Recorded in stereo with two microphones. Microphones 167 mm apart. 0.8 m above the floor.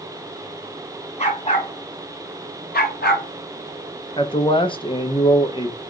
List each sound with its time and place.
1.2 s a dog barking: 40° left (ahead or behind), 2 m; by 3.3 s 75° left (ahead or behind), 1.6 m
4.2 s a man speaking: 30° left (ahead or behind), 0.7 m